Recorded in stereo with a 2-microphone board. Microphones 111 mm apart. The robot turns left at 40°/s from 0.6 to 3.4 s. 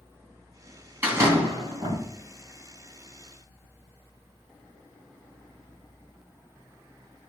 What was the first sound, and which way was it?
A door slam, 20° right.